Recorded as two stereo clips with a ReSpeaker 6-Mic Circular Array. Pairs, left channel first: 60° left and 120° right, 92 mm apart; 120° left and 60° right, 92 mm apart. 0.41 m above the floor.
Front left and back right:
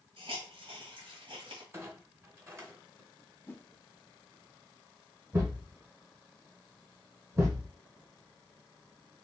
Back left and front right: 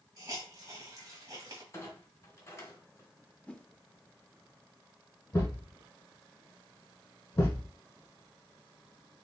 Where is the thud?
Straight behind, 1.3 m.